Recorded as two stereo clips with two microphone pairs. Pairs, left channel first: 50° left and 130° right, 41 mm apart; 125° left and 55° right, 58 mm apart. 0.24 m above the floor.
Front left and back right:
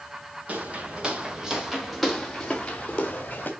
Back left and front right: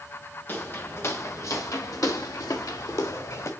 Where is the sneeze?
I don't hear a sneeze.